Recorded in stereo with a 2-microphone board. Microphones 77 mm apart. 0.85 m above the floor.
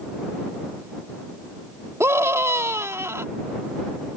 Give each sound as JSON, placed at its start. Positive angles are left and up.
{"t": 2.0, "sound": "a scream", "side_deg": -35}